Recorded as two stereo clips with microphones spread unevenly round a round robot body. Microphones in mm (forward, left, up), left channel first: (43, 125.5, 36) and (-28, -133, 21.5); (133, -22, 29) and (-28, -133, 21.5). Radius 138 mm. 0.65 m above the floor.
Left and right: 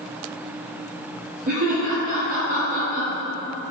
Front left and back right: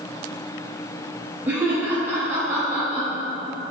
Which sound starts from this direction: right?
Laughter, at 1.5 s.